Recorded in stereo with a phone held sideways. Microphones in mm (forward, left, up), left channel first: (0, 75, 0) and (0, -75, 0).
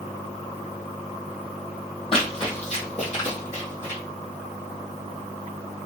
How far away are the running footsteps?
About 1.7 m.